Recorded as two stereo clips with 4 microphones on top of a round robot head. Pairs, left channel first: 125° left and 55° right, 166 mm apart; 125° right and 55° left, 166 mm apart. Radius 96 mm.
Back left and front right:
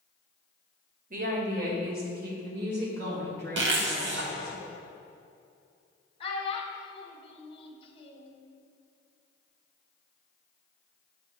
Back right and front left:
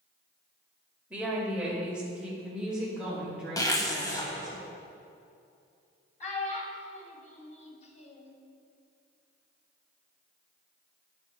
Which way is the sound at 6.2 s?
175° right.